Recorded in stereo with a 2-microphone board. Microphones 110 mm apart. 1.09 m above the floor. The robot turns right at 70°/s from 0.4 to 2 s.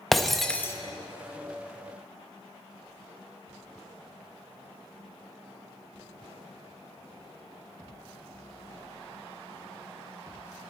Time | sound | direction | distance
0.1 | breaking glass | centre (ahead or behind) | 0.7 m